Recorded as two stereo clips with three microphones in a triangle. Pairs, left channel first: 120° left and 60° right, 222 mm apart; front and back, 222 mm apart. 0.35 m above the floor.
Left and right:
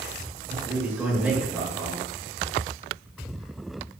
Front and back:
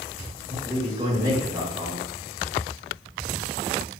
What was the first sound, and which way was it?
A man speaking, 135° right.